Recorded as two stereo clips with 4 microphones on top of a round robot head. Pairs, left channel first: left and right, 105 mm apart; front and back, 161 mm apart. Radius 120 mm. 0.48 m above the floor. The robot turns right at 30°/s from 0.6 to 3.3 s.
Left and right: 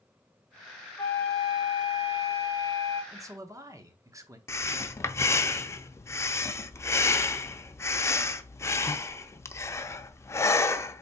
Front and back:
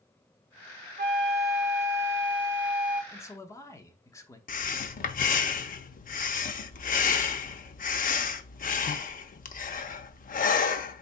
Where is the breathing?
25° left, 0.6 m.